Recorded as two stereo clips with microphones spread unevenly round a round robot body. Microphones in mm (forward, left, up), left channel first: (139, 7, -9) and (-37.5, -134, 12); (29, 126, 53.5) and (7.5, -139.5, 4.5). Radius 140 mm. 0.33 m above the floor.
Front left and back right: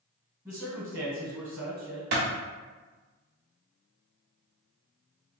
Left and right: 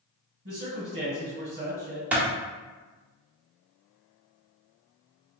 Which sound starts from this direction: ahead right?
A man speaking, at 0.5 s.